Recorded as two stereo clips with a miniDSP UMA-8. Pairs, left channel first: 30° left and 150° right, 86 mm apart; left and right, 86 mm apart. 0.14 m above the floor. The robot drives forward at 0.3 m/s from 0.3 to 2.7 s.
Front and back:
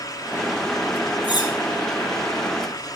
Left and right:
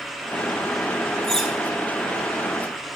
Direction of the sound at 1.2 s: 5° left.